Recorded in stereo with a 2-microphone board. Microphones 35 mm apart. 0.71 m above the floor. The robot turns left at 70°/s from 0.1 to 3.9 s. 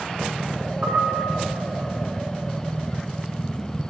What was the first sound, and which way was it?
A piano, 65° right.